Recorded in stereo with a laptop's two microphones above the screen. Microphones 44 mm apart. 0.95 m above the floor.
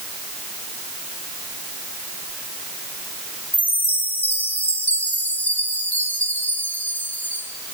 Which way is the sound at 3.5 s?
40° left (ahead or behind).